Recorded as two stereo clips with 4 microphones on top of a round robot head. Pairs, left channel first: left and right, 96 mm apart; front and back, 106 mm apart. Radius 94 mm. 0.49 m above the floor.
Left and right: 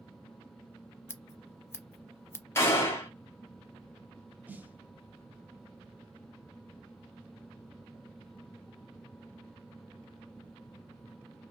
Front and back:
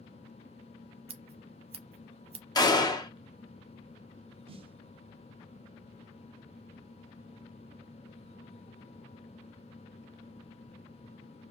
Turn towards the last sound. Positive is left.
turn(degrees=-160)